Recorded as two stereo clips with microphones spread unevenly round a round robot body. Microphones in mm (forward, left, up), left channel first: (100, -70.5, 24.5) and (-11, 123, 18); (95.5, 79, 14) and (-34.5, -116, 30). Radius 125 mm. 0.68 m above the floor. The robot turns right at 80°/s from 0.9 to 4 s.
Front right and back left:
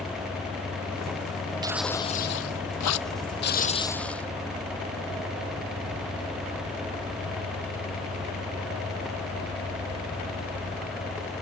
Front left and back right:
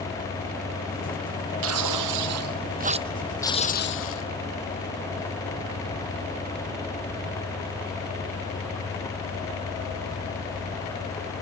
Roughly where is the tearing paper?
Behind.